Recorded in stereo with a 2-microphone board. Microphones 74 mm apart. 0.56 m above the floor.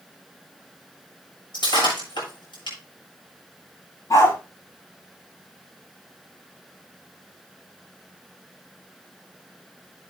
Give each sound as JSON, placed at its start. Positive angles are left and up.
{"t": 1.5, "sound": "breaking glass", "side_deg": 70, "distance_m": 8.0}
{"t": 4.1, "sound": "a dog barking", "side_deg": 45, "distance_m": 7.5}